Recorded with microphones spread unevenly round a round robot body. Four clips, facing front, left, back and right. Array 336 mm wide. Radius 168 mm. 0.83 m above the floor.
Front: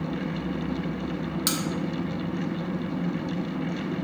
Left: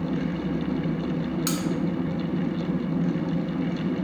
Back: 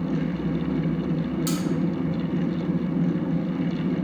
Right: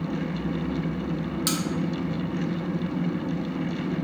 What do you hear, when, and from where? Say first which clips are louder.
1.5 s cutlery clinking: right 2 dB, back 3 dB; straight ahead, 0.7 m